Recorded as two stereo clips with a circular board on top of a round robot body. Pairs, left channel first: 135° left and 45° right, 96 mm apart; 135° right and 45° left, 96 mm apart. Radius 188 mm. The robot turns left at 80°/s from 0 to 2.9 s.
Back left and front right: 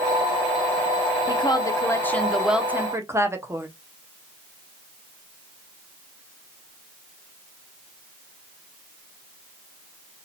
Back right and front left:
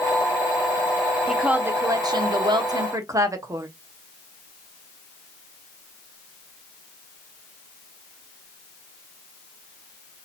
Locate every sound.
1.3 s a woman speaking: 135° left, 1.2 m; by 3.7 s 5° left, 1.2 m